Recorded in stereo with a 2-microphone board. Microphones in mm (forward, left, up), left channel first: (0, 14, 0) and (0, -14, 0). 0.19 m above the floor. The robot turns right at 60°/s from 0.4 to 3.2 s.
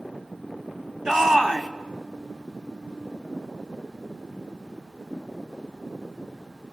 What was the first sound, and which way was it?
A shout, 25° right (ahead or behind).